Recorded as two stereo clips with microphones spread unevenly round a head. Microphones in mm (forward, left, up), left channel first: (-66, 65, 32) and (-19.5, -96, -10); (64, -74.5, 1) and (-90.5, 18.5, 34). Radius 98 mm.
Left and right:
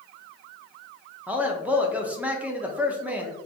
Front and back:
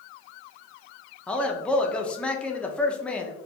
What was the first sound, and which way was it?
A man speaking, 75° right.